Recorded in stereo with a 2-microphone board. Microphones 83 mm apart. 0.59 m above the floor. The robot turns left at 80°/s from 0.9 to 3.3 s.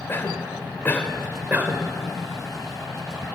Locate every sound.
0.1 s a cough: 25° left (ahead or behind), 2.5 m; by 3.3 s 15° right (ahead or behind), 2.5 m